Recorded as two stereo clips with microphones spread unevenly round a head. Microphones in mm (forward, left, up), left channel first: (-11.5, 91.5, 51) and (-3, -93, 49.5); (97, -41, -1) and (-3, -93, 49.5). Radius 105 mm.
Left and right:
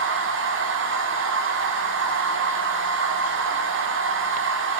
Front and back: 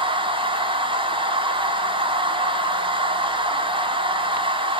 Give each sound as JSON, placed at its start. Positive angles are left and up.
{"t": 0.0, "sound": "a machine running", "azimuth_deg": -105, "distance_m": 1.3}